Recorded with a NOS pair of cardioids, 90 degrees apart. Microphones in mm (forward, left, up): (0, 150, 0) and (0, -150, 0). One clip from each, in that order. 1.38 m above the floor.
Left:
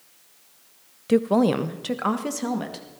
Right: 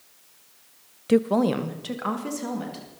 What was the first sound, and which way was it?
A woman speaking, 5° right.